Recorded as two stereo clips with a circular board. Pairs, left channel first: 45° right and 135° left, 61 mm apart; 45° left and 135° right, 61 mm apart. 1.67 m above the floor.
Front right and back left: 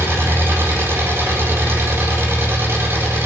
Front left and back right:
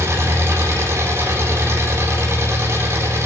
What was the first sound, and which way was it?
An engine running, 175° right.